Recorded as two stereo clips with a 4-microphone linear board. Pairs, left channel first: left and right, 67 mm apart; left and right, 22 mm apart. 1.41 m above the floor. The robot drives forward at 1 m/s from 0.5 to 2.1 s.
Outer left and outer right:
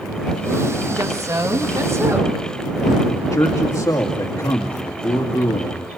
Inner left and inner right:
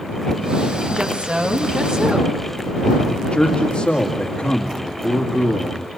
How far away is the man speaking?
About 2.5 m.